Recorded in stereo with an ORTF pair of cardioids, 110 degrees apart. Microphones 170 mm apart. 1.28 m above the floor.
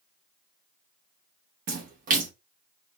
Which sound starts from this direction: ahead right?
A splash, at 1.7 s.